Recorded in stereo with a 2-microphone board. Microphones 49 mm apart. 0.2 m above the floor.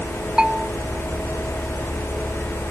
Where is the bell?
15° right (ahead or behind).